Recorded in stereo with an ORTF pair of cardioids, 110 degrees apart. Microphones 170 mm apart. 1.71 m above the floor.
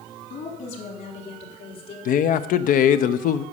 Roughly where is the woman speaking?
Ahead left.